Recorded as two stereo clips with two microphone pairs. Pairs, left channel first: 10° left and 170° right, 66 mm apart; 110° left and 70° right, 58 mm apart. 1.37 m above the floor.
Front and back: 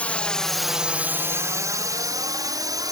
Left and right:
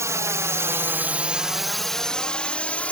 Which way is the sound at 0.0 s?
55° right.